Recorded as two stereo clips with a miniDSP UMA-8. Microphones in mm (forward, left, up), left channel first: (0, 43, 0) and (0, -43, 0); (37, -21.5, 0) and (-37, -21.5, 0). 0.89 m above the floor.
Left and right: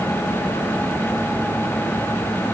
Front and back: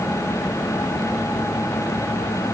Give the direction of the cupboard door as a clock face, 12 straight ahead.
No cupboard door in this recording.